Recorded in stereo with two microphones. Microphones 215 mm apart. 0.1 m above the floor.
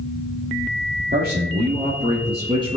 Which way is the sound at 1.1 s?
40° right (ahead or behind).